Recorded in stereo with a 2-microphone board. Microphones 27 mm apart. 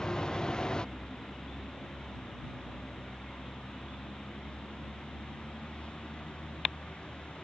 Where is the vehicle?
25° left (ahead or behind); by 7.4 s 40° left (ahead or behind).